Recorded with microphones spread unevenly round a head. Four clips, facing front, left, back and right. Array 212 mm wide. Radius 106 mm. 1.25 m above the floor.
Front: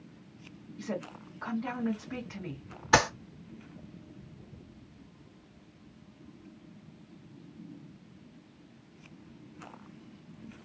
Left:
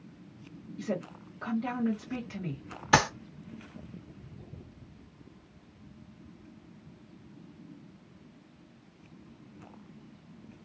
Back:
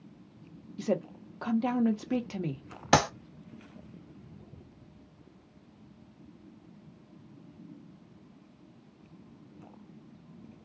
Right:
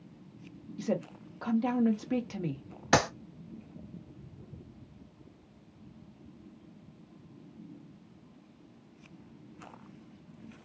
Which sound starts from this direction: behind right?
A woman speaking, at 0.8 s.